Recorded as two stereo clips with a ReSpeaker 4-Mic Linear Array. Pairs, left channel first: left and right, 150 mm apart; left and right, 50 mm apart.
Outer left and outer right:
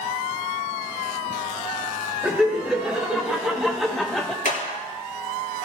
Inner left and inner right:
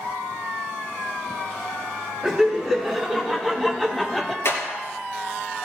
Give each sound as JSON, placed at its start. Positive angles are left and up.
{"t": 2.2, "sound": "laughter", "side_deg": -5, "distance_m": 3.5}
{"t": 4.5, "sound": "a clap", "side_deg": 65, "distance_m": 4.5}